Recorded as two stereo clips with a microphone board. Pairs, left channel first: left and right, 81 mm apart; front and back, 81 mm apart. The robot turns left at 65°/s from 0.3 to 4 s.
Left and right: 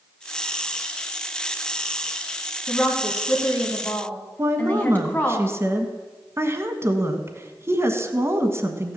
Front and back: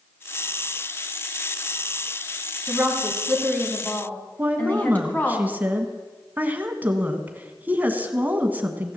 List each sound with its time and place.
2.7 s a woman speaking: 135° left, 1.8 m; by 5.4 s 45° left, 1.8 m
4.4 s a woman speaking: 125° right, 1.3 m